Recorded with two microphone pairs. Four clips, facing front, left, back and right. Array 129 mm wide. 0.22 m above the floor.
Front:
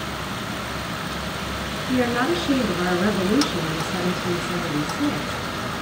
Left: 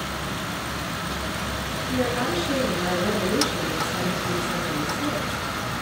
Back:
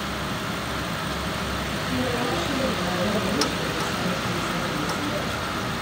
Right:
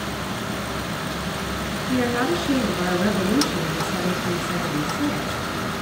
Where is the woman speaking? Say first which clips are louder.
Right 3 dB, front 6 dB; 20° right, 3.5 m.